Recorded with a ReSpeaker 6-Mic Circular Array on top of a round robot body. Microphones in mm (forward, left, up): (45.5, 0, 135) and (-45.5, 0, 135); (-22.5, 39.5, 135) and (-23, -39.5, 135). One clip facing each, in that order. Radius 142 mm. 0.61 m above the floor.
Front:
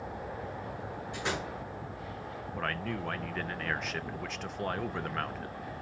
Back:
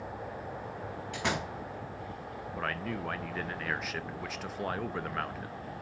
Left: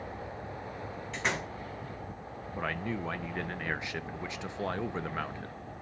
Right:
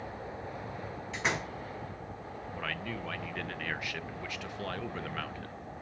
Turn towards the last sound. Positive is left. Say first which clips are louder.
# even, left 5 dB
turn(degrees=100)